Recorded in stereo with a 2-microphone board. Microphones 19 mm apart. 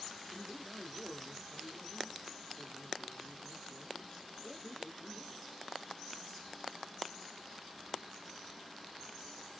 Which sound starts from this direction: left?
A man speaking, at 0.3 s.